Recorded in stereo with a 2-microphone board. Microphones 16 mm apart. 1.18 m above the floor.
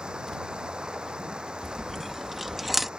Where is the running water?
60° right (ahead or behind).